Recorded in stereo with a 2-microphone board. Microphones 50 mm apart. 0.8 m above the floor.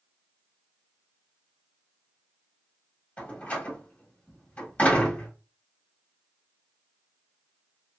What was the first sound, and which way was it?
A door slam, 25° left (ahead or behind).